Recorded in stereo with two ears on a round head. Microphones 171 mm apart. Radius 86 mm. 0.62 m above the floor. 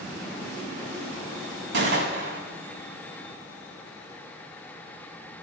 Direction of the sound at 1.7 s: 60° right (ahead or behind).